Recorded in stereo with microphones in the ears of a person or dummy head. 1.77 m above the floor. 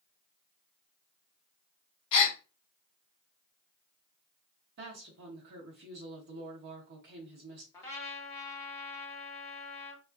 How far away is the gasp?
About 0.8 m.